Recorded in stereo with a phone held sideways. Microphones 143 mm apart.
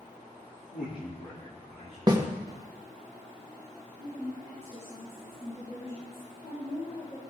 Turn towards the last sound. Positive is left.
turn(degrees=60)  # may be behind; listen again after turning